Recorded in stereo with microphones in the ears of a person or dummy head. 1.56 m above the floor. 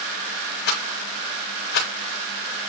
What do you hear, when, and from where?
0.7 s a rattle: 70° left (ahead or behind), 3.5 m